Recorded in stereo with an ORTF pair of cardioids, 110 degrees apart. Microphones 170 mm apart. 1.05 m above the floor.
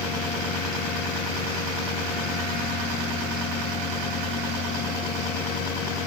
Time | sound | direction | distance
0.0 | a machine running | 65° left | ?